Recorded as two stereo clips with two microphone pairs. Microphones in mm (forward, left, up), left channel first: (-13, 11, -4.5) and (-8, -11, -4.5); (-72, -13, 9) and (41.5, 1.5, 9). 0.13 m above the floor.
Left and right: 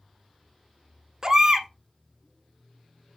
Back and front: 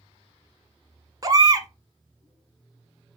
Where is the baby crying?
25° right, 0.6 m.